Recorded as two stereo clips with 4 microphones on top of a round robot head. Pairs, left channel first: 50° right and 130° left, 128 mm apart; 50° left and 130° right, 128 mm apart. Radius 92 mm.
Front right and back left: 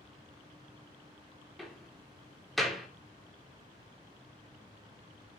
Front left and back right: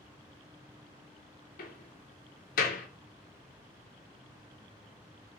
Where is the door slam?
40° left, 3 m.